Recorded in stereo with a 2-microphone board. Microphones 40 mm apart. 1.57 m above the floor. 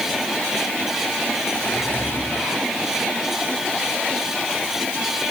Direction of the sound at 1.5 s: 80° left.